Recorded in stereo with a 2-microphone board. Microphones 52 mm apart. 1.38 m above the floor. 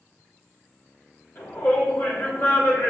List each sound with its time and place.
1.4 s a shout: 40° left (ahead or behind), 4.5 m